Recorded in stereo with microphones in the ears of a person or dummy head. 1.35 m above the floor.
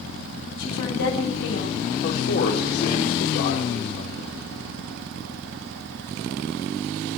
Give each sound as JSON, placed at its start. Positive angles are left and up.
{"t": 0.6, "sound": "a woman speaking", "side_deg": 75, "distance_m": 6.5}
{"t": 2.0, "sound": "a man speaking", "side_deg": 55, "distance_m": 4.5}